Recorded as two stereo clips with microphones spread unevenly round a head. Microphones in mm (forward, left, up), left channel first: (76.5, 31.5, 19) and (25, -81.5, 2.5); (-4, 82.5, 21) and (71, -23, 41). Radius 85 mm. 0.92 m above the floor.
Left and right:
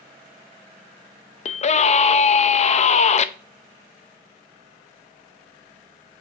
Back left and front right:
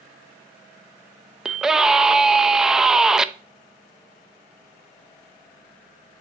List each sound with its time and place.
1.4 s a scream: 35° left, 0.7 m